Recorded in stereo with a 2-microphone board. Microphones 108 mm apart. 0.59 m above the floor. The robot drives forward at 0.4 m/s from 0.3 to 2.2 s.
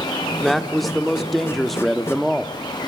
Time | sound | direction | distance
0.4 | a man speaking | centre (ahead or behind) | 1.7 m